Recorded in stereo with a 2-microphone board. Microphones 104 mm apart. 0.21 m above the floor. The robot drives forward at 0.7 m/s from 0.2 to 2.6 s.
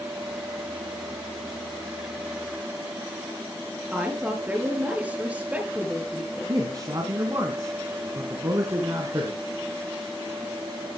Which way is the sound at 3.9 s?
15° right (ahead or behind).